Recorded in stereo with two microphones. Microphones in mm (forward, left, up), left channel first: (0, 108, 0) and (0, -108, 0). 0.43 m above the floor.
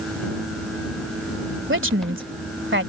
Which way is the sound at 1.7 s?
65° right (ahead or behind).